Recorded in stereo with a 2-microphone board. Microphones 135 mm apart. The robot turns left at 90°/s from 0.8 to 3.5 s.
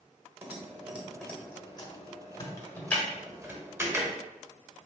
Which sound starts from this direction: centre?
Typing on a keyboard, at 0.4 s.